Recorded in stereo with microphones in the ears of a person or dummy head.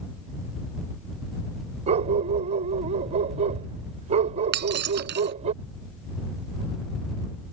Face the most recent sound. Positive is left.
turn(degrees=-55)  # may be behind; listen again after turning